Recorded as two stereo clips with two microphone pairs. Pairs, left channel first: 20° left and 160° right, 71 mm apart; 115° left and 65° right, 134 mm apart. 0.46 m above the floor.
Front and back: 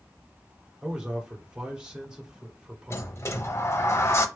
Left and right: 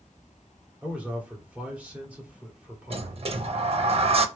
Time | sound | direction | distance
0.8 | a man speaking | 110° right | 1.3 m
2.9 | a sliding door | 25° right | 0.5 m